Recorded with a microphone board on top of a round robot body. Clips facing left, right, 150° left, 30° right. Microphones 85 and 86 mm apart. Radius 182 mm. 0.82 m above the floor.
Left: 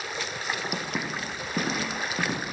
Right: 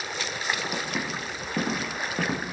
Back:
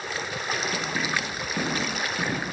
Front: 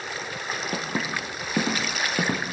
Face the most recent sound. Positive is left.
turn(degrees=-10)